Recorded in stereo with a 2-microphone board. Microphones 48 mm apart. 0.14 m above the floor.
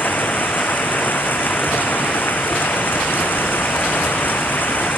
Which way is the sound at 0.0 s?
40° left (ahead or behind).